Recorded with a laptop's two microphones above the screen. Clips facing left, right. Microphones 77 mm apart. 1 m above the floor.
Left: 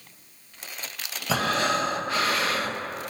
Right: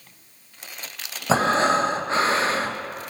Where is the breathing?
30° right (ahead or behind), 0.8 m.